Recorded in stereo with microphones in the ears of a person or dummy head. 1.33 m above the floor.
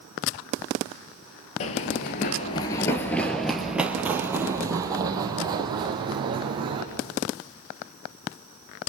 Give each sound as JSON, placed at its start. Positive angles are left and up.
{"t": 1.6, "sound": "running footsteps", "side_deg": 35, "distance_m": 1.6}